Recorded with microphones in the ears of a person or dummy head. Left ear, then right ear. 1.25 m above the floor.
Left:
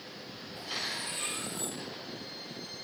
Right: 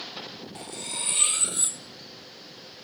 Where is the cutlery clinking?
60° right (ahead or behind), 0.7 m.